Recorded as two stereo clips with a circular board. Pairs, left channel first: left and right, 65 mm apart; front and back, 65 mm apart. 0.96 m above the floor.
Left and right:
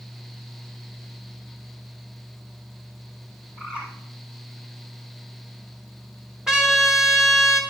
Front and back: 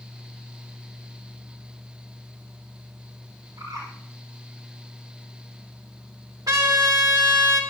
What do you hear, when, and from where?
3.6 s a bird: 165° right, 8 m
6.5 s a trumpet: 175° right, 2.5 m